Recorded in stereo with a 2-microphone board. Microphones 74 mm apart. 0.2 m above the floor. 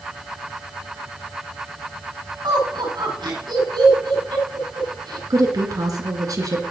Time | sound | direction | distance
2.4 | laughter | 75° right (ahead or behind) | 6 m
5.3 | a woman speaking | 55° right (ahead or behind) | 2.5 m